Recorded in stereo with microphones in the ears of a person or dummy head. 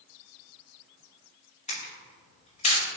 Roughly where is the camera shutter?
Left.